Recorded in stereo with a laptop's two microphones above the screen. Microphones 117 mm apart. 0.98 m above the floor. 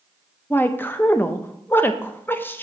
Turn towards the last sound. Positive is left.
turn(degrees=15)  # may be behind; listen again after turning